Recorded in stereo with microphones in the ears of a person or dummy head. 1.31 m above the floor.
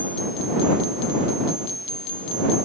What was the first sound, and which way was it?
Only background noise.